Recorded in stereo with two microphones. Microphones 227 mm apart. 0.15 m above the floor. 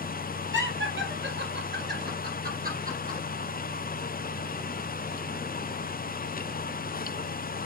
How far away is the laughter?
About 3 m.